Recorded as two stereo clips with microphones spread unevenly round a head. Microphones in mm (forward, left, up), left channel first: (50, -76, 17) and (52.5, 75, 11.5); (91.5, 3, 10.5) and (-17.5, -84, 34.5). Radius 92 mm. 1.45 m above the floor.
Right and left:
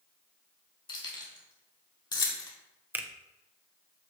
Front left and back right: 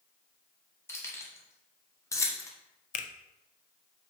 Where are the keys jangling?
35° right, 3.5 m; by 2.5 s 30° right, 2 m.